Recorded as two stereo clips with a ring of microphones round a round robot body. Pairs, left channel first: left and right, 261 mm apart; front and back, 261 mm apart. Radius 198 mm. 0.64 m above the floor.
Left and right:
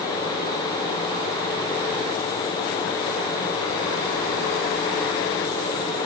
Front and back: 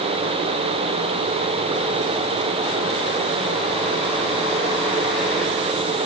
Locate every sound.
Only background noise.